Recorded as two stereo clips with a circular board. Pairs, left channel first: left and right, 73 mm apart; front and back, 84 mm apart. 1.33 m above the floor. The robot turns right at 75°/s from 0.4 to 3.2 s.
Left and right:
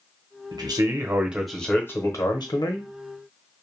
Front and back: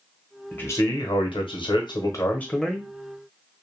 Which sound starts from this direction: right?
A man speaking, at 0.5 s.